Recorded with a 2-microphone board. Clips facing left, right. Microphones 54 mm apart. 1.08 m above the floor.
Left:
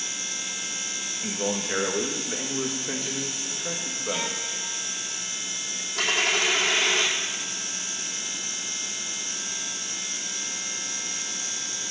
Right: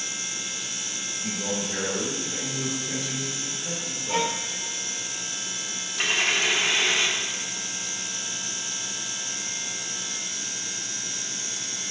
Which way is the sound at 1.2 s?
60° left (ahead or behind).